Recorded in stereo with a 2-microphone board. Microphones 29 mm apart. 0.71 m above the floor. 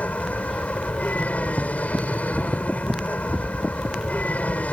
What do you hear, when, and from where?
0.0 s an aircraft: 60° left (ahead or behind)